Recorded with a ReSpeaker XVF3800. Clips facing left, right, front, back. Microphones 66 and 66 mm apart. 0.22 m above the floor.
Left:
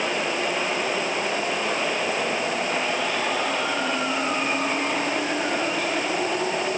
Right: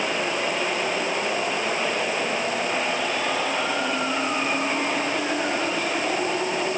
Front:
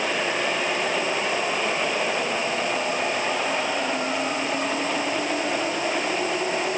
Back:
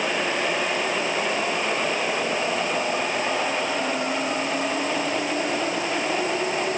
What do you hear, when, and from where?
Only background noise.